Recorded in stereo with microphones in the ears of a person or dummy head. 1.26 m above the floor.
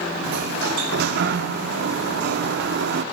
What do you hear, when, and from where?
0.2 s a sliding door: 65° right (ahead or behind), 1.3 m